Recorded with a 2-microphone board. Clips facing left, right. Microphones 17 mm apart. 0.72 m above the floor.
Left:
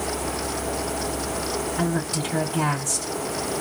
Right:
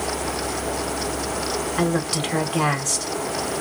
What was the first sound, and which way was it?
A woman speaking, 70° right (ahead or behind).